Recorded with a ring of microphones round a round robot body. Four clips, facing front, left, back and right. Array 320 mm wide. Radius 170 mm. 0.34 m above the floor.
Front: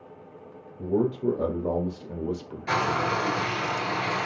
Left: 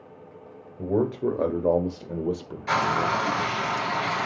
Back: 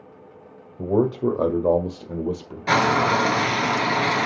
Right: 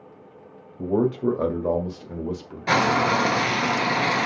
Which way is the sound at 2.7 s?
135° right.